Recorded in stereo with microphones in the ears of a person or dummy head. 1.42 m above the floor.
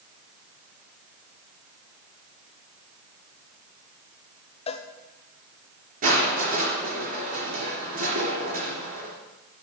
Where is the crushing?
55° right (ahead or behind), 4 m.